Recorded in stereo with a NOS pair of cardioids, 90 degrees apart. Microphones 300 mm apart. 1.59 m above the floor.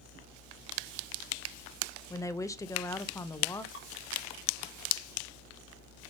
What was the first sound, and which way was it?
A woman speaking, 10° left.